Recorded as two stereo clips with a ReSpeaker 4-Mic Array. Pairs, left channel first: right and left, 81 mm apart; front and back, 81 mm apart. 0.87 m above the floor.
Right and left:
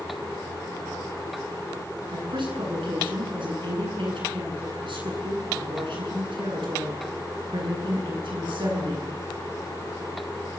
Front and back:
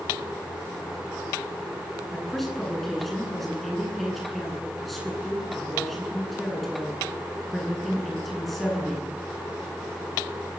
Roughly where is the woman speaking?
Left.